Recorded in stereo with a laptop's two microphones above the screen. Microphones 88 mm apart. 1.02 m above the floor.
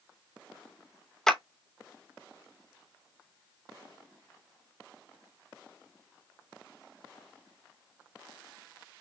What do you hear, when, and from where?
1.3 s a clap: 10° left (ahead or behind), 0.6 m